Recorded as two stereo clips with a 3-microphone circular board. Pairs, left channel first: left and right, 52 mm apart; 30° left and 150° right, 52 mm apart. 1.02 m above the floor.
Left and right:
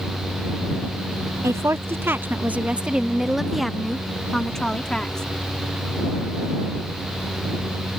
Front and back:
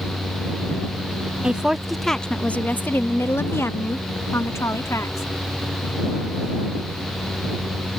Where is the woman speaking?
80° right; by 5.3 s 15° left.